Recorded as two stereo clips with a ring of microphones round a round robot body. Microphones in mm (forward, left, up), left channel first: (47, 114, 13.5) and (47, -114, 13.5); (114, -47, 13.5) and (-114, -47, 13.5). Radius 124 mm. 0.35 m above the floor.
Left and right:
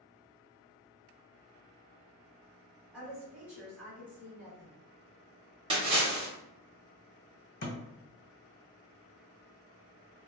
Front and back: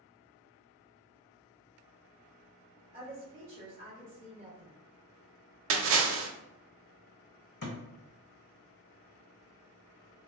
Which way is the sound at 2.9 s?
165° right.